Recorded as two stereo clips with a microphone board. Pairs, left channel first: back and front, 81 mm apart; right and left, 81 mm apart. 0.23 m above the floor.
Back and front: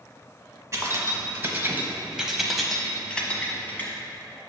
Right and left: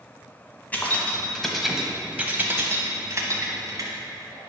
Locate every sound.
0.7 s keys jangling: 30° right, 1.1 m; by 3.9 s 120° left, 1.4 m